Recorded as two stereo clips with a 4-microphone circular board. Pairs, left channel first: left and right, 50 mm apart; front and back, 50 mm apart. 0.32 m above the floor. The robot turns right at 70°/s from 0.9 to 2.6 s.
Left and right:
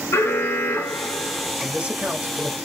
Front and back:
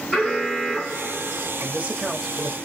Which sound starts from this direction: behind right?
A man speaking, at 1.6 s.